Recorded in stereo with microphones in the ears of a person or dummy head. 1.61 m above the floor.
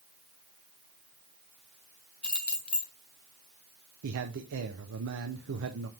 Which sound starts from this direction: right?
A man speaking, at 4.0 s.